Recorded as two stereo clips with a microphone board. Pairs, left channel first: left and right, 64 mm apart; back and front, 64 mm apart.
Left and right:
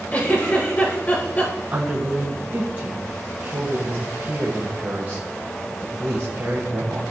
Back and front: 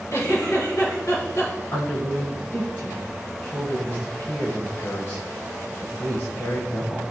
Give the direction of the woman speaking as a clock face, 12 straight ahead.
5 o'clock.